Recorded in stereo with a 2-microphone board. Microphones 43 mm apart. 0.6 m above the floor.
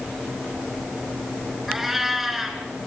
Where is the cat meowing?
5° right (ahead or behind), 3 m.